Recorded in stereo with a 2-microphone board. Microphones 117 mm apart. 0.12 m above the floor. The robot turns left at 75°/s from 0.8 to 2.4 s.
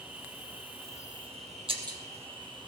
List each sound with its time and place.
0.0 s an insect: 15° right, 2 m; by 2.7 s 135° right, 2 m
1.7 s breaking glass: 50° right (ahead or behind), 2.5 m; by 2.0 s 30° right (ahead or behind), 2.5 m